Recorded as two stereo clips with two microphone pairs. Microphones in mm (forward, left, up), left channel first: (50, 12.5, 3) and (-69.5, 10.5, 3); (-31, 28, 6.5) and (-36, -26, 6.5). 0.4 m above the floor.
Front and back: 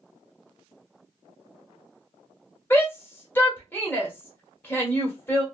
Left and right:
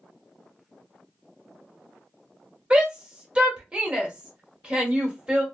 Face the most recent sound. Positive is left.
turn(degrees=-50)